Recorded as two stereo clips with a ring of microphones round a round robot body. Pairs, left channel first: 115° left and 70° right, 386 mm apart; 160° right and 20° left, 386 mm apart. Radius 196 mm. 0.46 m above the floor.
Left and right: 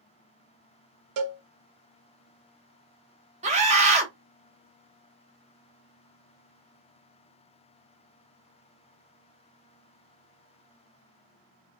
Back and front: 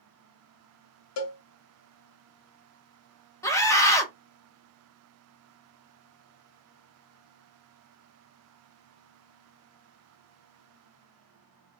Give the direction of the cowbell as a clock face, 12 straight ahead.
4 o'clock.